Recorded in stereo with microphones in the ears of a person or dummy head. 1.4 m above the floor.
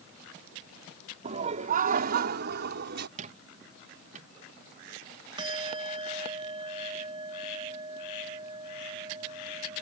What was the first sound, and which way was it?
Laughter, 30° right (ahead or behind).